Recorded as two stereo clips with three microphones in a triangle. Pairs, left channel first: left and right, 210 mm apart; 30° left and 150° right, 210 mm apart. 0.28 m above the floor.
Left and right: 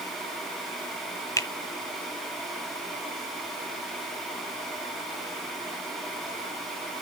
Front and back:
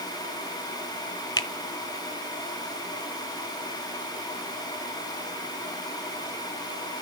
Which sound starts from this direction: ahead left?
A finger snap, at 1.4 s.